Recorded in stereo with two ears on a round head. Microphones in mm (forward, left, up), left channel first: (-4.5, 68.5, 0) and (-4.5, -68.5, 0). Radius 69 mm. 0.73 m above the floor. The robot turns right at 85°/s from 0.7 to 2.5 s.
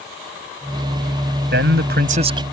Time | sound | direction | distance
1.5 | a man speaking | 105° right | ?